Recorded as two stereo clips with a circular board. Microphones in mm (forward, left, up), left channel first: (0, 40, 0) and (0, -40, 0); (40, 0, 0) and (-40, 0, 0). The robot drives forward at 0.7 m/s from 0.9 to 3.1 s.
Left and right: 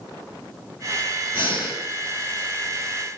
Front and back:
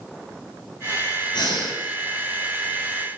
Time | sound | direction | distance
1.3 | breathing | 25° right | 9 m